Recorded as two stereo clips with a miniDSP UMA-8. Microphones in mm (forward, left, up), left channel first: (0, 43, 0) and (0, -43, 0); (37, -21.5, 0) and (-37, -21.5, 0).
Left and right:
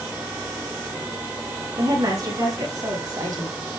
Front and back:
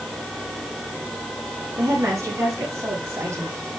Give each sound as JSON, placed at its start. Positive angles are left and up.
{"t": 1.8, "sound": "a woman speaking", "azimuth_deg": -130, "distance_m": 8.0}